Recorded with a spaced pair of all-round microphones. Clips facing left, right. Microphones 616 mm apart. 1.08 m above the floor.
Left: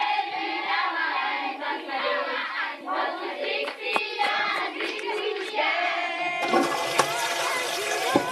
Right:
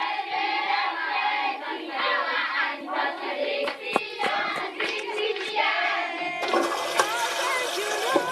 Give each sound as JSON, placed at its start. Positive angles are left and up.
{"t": 3.6, "sound": "running footsteps", "side_deg": -60}
{"t": 6.4, "sound": "a toilet flushing", "side_deg": 50}